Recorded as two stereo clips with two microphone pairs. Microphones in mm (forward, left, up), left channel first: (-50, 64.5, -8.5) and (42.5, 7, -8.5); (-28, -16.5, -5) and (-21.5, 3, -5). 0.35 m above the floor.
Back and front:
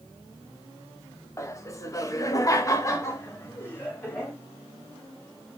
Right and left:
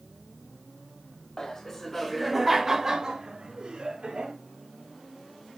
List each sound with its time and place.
1.4 s laughter: 165° right, 1.2 m; by 4.3 s 80° left, 1.6 m